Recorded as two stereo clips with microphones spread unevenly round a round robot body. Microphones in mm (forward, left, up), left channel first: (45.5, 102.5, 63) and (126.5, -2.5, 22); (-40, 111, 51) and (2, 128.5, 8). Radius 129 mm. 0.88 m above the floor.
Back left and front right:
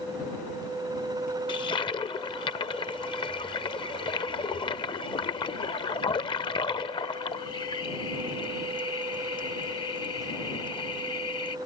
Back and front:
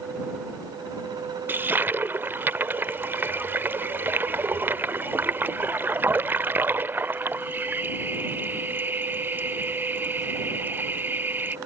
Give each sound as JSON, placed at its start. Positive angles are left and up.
{"t": 1.5, "sound": "a toilet flushing", "azimuth_deg": 105}